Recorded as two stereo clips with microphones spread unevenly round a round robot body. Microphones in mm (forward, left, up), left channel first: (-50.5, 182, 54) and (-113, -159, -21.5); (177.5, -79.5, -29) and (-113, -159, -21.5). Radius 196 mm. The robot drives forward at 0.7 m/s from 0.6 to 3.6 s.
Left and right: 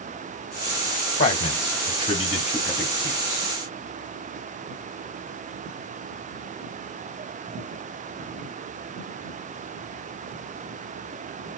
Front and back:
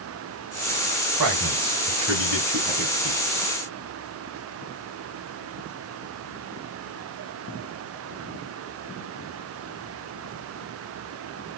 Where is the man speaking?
150° left, 3.5 m; by 3.5 s 160° left, 5 m.